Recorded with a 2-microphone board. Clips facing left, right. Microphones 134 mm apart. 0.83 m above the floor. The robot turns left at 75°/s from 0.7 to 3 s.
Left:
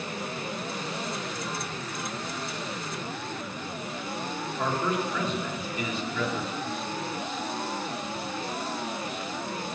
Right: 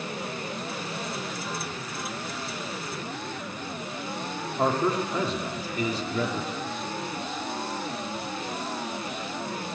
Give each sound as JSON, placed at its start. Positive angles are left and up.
{"t": 4.6, "sound": "a man speaking", "side_deg": -35, "distance_m": 1.5}